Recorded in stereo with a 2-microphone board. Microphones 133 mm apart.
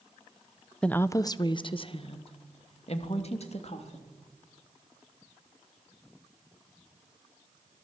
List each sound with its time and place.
0.8 s a woman speaking: 5° left (ahead or behind), 0.5 m; by 4.1 s 55° left (ahead or behind), 3 m